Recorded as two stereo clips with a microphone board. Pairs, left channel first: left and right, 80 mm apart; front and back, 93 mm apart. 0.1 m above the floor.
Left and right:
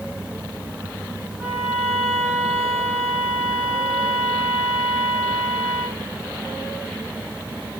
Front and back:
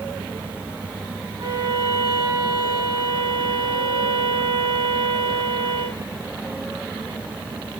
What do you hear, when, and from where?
1.4 s a violin: 170° right, 7 m